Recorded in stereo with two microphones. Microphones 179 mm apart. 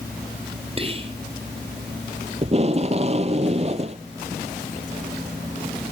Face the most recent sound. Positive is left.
turn(degrees=-35)  # may be behind; listen again after turning